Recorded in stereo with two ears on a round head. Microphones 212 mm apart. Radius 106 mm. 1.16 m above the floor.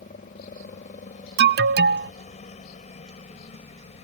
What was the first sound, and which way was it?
A helicopter, 30° left (ahead or behind).